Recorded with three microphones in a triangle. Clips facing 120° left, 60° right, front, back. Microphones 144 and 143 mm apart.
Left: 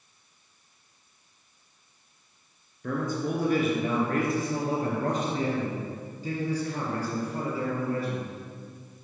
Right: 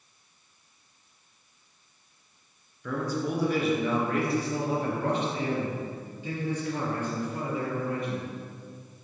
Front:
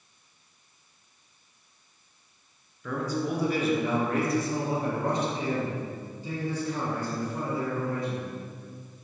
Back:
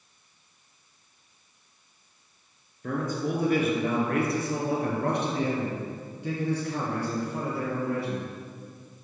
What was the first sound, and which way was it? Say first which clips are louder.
A man speaking: left 1 dB, even; 150° left.